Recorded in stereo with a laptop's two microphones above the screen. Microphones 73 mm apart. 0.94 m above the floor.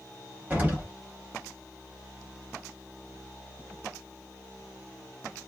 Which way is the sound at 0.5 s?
25° right (ahead or behind).